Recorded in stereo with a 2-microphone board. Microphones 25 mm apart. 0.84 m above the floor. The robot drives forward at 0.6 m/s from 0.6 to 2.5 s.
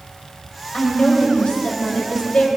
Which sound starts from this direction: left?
A woman speaking, at 0.7 s.